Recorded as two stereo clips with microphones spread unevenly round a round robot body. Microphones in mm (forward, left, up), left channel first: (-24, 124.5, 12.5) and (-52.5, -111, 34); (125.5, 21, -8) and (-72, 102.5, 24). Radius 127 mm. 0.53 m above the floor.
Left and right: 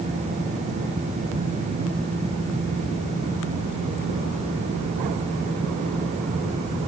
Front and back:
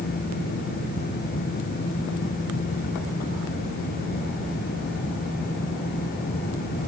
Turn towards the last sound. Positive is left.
No sound to turn to.